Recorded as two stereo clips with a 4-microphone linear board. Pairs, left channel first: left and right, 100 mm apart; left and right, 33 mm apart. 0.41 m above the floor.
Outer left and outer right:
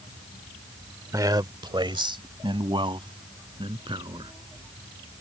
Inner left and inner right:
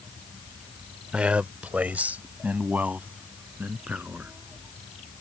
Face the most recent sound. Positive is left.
turn(degrees=-55)  # may be behind; listen again after turning